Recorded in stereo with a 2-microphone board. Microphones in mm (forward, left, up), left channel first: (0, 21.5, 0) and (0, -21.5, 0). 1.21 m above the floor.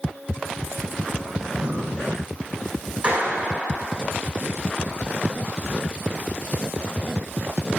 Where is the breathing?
30° right (ahead or behind), 6 m.